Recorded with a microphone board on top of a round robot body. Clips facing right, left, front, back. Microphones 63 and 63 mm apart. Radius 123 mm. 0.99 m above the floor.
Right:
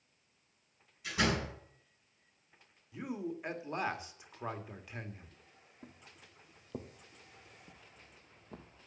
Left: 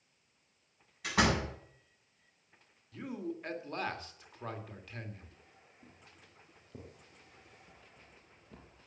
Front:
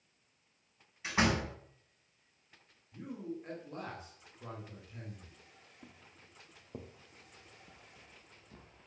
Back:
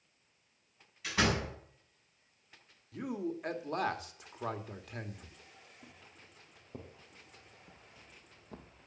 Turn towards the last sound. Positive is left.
turn(degrees=-155)